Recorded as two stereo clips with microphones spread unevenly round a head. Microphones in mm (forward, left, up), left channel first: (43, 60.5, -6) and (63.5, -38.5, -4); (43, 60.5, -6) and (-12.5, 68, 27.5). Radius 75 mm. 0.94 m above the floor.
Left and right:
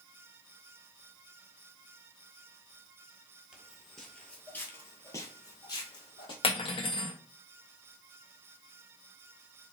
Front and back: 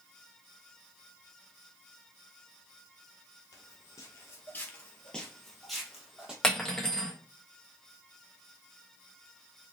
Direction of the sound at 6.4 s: 75° left.